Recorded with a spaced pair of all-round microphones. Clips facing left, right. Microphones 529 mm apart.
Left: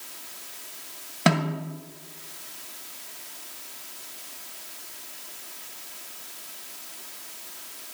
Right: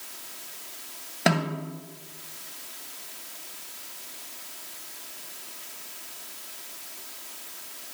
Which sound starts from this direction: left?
A snare drum, at 1.3 s.